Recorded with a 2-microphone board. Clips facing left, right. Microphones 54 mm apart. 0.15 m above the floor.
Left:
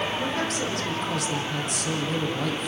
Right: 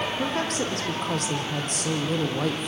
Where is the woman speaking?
45° right (ahead or behind), 6 m.